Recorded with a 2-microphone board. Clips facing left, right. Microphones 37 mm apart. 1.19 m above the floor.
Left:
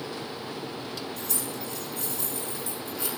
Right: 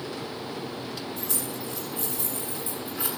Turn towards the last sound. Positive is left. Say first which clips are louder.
# right 1 dB
turn(degrees=-20)  # may be behind; listen again after turning